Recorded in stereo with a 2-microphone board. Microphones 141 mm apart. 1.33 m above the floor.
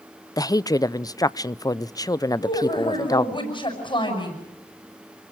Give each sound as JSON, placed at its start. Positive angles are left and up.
{"t": 0.4, "sound": "a woman speaking", "side_deg": 25, "distance_m": 0.5}
{"t": 2.4, "sound": "a woman speaking", "side_deg": 35, "distance_m": 8.0}